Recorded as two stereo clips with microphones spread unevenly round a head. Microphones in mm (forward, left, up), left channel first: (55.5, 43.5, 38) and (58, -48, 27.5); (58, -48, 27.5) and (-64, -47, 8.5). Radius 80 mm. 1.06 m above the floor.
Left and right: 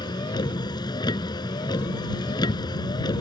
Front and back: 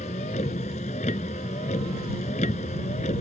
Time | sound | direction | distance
0.0 | a vehicle | 50° left | ?